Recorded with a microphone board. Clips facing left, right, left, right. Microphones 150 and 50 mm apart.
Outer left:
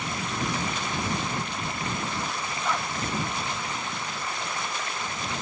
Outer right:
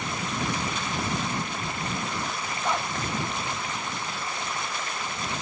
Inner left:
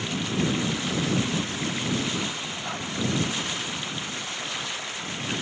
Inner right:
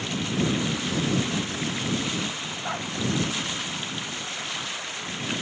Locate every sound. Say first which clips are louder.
2.6 s a dog barking: outer right 2 dB, inner right 4 dB; 15° right (ahead or behind)